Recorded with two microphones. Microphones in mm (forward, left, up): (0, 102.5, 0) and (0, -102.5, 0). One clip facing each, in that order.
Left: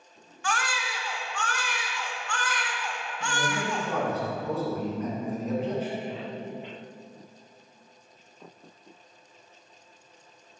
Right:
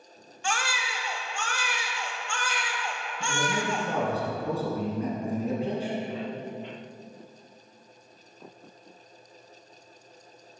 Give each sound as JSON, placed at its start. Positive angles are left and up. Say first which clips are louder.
{"t": 0.4, "sound": "a baby crying", "louder": "even", "side_deg": -25, "distance_m": 1.0}
{"t": 3.2, "sound": "a man speaking", "louder": "right 1 dB", "side_deg": -30, "distance_m": 2.5}